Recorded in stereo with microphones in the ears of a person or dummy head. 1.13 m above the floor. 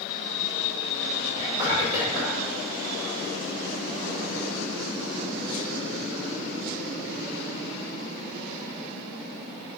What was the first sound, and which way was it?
Whispering, 30° left (ahead or behind).